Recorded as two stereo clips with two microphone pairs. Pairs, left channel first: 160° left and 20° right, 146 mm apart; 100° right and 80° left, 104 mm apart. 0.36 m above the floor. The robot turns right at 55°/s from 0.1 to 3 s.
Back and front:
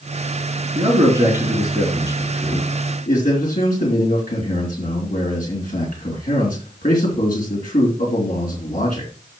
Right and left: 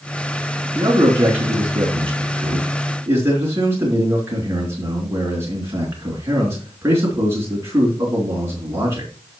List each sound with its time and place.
0.8 s a man speaking: 20° left, 4 m; by 9.1 s 140° left, 4 m